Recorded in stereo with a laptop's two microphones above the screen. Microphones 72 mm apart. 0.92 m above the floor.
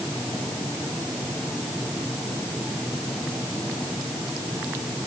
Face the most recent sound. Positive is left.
No sound to turn to.